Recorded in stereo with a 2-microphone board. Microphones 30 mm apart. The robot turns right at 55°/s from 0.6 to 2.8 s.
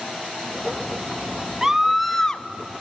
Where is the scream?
20° right, 1.1 m; by 2.4 s 30° left, 1.1 m.